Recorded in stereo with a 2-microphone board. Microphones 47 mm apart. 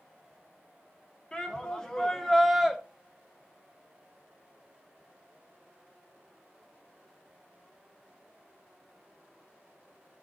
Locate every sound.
1.3 s a shout: 20° left (ahead or behind), 1.4 m; by 2.8 s 5° right (ahead or behind), 0.8 m